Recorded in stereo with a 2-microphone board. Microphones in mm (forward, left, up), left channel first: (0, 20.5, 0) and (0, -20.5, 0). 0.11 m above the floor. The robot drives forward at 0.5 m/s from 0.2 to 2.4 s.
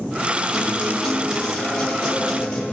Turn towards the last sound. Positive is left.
turn(degrees=10)  # may be behind; listen again after turning